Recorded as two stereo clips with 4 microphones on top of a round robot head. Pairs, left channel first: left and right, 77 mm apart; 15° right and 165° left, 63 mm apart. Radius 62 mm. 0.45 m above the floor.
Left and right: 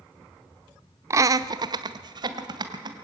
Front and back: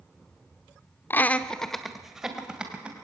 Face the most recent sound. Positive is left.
turn(degrees=-115)